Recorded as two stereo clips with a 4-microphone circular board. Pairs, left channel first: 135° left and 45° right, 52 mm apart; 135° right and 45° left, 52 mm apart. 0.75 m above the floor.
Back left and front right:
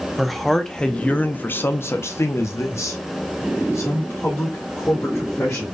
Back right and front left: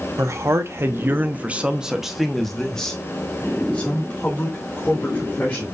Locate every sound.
0.2 s a man speaking: 45° left, 0.9 m; by 5.7 s 170° left, 2.5 m